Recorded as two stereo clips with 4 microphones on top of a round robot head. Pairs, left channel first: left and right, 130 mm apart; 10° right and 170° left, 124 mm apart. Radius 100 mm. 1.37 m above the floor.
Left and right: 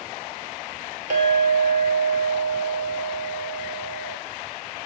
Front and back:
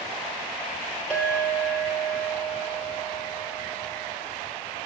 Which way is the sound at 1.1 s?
100° right.